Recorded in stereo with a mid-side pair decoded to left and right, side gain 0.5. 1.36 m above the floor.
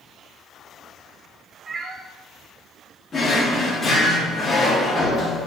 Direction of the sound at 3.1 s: 35° left.